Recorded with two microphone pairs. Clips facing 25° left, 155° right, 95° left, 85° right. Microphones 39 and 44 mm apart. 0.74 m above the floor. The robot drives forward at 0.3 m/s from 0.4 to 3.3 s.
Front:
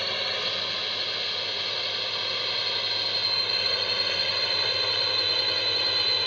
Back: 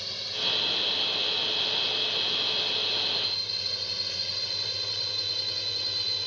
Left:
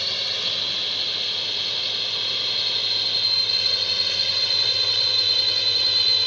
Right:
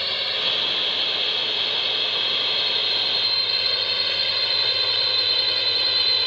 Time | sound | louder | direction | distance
0.0 | a drone | front 4 dB, right 2 dB | 15° right | ?